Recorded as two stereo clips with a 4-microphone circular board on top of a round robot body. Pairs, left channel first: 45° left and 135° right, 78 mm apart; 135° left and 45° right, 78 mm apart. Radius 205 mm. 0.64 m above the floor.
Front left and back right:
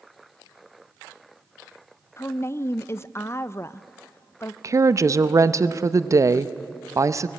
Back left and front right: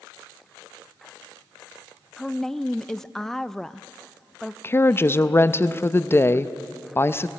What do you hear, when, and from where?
2.2 s a woman speaking: 55° left, 0.6 m
4.6 s a woman speaking: 175° right, 0.8 m